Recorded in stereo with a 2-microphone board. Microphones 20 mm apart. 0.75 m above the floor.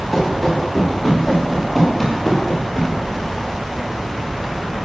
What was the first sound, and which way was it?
Running footsteps, 5° left (ahead or behind).